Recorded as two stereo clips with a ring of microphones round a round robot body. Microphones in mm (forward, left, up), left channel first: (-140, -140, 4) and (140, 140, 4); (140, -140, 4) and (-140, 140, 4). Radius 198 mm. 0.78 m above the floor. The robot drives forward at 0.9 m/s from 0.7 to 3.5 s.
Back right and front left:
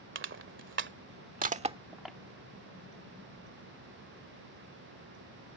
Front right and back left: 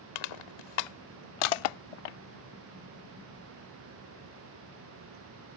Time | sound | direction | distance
0.1 | crushing | 15° right | ?